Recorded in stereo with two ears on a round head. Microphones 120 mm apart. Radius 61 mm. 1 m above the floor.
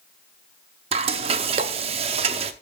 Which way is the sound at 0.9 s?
45° right (ahead or behind).